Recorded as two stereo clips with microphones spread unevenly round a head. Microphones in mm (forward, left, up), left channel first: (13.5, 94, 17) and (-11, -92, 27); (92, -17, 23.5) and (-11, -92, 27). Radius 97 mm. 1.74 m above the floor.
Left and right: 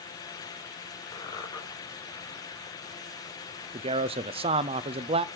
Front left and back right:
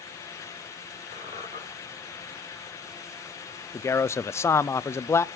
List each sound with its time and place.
1.1 s a squeak: 150° left, 3 m
3.7 s a man speaking: 35° right, 0.6 m